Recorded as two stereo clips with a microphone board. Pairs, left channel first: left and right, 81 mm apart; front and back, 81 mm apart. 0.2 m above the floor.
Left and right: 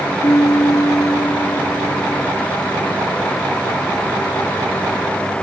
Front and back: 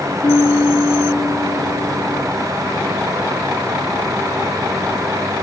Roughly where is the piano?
Ahead left.